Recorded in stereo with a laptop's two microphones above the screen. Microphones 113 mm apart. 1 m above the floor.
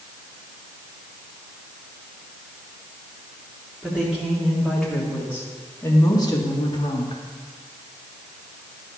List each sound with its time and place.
3.8 s a woman speaking: 10° right (ahead or behind), 2 m; by 7.2 s 60° left (ahead or behind), 1.8 m